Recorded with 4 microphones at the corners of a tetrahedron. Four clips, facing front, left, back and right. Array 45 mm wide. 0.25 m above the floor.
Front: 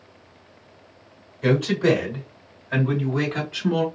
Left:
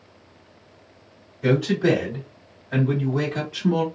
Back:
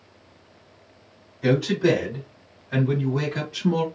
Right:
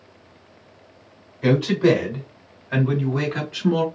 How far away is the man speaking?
About 2.5 m.